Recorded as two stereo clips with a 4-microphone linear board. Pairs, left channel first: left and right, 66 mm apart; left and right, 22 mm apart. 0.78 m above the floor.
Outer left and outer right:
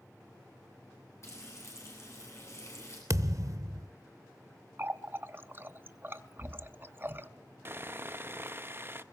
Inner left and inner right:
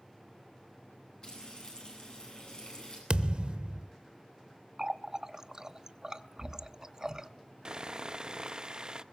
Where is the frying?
40° left (ahead or behind), 8.5 m.